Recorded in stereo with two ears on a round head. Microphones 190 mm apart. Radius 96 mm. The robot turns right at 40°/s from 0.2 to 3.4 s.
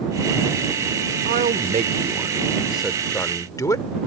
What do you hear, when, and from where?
1.2 s a man speaking: 65° right; by 3.9 s 20° left